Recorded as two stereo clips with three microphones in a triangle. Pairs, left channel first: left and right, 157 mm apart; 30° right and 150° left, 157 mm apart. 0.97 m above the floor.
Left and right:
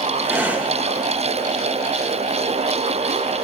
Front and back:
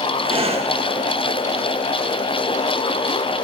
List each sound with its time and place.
0.2 s breathing: 165° right, 1.3 m